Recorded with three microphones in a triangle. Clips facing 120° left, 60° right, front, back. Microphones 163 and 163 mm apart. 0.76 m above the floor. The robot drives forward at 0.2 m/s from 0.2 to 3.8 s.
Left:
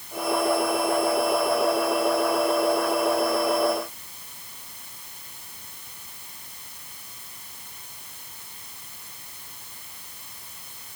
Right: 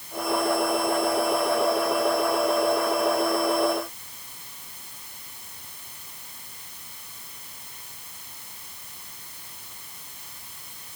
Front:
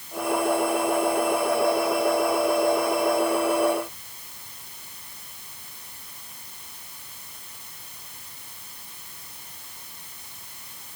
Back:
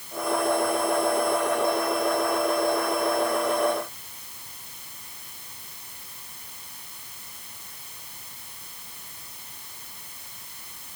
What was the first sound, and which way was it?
Only background noise.